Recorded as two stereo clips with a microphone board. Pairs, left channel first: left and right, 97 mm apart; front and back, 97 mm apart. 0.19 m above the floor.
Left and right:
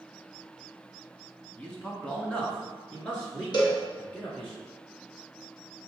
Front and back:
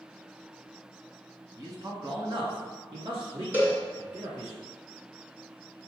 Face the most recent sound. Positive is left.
turn(degrees=115)